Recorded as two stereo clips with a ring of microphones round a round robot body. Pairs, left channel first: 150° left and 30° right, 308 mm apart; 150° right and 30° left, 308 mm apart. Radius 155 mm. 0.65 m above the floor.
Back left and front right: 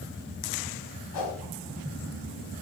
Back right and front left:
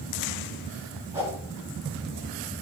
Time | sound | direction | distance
1.1 | a whoosh | 110° left | 2.5 m